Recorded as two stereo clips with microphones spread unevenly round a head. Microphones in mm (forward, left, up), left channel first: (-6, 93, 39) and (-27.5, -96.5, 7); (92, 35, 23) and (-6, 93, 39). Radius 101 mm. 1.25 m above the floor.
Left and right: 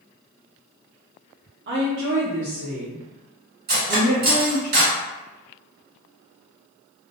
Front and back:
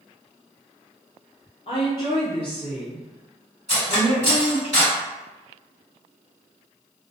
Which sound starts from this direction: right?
A woman speaking, at 1.7 s.